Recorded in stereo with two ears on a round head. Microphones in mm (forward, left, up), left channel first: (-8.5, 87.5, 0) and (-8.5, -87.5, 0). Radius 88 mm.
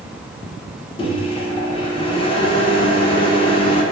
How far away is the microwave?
About 0.5 m.